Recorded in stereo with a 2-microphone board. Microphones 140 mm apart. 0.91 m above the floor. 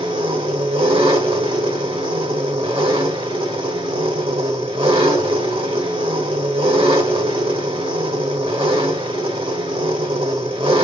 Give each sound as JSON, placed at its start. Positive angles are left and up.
{"t": 0.0, "sound": "an engine running", "side_deg": -40, "distance_m": 1.1}